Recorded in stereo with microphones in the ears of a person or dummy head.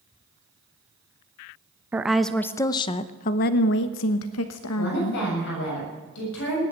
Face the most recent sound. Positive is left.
turn(degrees=60)  # may be behind; listen again after turning